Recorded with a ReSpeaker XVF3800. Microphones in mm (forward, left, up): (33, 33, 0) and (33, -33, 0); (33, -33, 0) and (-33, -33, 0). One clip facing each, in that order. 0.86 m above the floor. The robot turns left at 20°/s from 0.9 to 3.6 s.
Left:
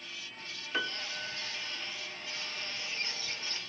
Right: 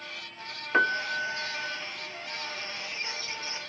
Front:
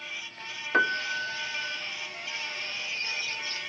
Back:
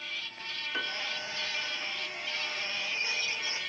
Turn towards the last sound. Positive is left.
turn(degrees=-95)